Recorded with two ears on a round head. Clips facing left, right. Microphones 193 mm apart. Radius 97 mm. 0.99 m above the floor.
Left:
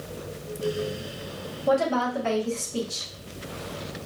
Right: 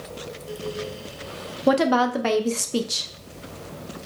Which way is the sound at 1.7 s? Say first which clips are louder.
Right 4 dB; 80° right.